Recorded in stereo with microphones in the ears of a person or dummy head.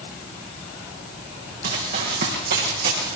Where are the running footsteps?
55° right (ahead or behind), 5 m; by 3.2 s 50° right (ahead or behind), 4.5 m.